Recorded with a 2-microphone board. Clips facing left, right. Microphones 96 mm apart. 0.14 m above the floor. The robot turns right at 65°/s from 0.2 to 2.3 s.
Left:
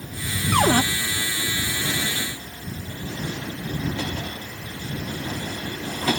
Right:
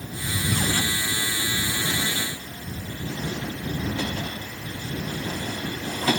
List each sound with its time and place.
0.5 s a cupboard door: 70° left (ahead or behind); by 0.8 s 45° left (ahead or behind)